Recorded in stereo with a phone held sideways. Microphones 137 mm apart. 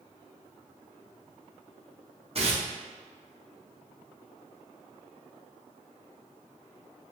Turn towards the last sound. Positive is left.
turn(degrees=-45)  # may be behind; listen again after turning